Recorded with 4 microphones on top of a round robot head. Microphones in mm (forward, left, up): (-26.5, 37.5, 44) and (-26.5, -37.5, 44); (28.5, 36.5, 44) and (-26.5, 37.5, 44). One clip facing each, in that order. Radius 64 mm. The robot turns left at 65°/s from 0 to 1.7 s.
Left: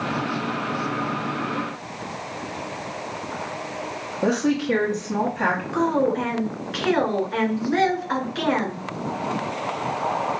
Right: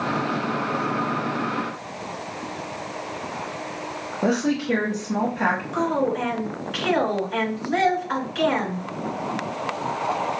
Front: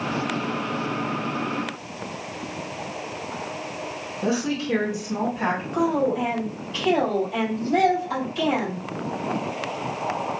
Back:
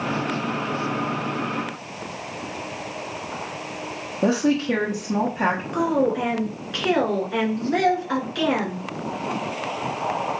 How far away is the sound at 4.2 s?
About 1.2 m.